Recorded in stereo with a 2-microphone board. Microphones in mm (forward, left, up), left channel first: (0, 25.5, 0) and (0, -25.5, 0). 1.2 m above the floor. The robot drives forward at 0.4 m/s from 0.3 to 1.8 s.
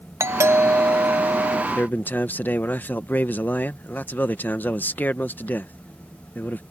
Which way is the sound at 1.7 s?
35° left (ahead or behind).